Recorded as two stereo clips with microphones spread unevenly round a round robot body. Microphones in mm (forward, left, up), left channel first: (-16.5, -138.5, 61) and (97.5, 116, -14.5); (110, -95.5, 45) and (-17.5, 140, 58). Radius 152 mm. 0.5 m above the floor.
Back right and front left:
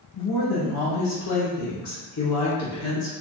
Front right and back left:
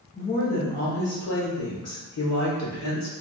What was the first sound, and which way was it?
A woman speaking, 130° right.